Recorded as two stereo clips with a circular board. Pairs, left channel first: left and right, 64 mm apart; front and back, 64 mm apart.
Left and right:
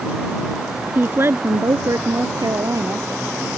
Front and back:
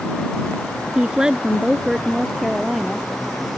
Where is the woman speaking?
115° right; by 3.1 s 90° right.